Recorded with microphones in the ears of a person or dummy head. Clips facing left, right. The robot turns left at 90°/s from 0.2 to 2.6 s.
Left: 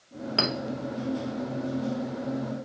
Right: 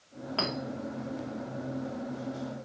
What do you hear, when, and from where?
0.4 s a clink: 25° left (ahead or behind), 2.5 m; by 0.5 s 10° left (ahead or behind), 2.5 m